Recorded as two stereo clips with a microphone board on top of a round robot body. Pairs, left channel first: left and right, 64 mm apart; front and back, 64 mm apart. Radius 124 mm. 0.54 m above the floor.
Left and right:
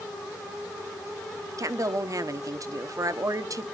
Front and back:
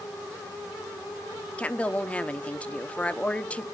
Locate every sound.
1.6 s a woman speaking: 70° right, 1.0 m